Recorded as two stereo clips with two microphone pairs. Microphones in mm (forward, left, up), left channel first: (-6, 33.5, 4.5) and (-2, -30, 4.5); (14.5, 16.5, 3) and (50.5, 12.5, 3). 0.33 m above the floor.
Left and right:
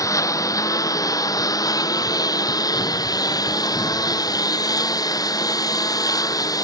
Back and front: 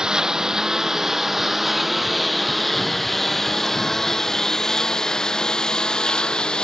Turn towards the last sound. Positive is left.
turn(degrees=110)